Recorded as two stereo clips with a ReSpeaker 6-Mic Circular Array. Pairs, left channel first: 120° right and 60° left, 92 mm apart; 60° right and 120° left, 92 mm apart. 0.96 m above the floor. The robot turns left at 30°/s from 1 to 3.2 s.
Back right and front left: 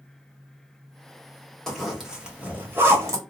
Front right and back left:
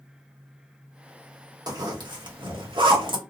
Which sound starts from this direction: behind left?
A zipper, at 1.7 s.